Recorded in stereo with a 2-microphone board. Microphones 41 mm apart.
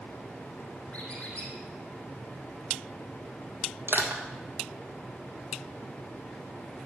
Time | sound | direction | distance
0.9 | a squeak | 35° left (ahead or behind) | 4 m
3.9 | crushing | 65° right (ahead or behind) | 1.3 m